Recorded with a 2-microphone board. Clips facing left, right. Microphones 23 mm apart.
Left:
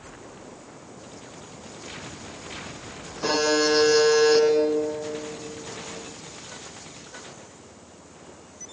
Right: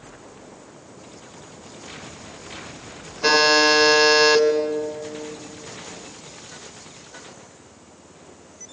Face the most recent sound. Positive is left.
turn(degrees=-55)  # may be behind; listen again after turning